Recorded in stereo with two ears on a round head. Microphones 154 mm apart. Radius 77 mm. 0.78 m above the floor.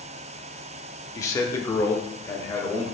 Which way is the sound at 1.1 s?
20° left (ahead or behind).